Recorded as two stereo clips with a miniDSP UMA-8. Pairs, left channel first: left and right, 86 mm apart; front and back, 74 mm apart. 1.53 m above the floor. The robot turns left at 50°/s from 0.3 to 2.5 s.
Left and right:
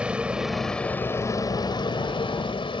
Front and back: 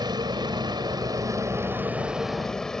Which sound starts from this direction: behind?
A vehicle, at 0.0 s.